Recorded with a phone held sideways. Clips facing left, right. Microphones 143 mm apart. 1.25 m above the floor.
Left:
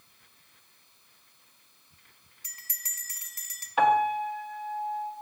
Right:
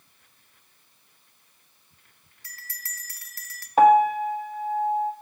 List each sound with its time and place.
2.4 s a bell: 20° left (ahead or behind), 0.8 m
3.8 s a piano: 40° right (ahead or behind), 1.1 m